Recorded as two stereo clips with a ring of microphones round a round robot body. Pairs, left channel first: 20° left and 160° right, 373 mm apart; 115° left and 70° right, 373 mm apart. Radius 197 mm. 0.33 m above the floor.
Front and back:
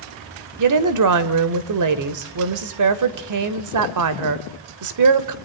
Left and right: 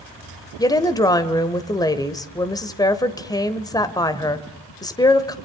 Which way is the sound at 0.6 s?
170° right.